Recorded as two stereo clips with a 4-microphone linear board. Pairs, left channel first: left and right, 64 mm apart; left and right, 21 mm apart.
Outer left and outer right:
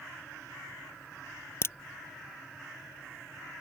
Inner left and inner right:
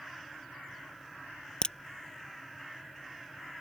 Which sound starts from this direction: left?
A crack, at 1.6 s.